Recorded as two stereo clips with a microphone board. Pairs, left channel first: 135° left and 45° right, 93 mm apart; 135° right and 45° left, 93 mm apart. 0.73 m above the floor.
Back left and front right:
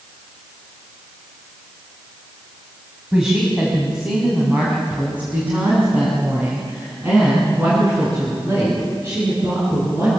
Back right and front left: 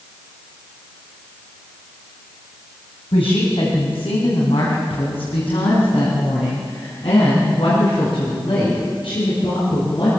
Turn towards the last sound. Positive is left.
turn(degrees=-105)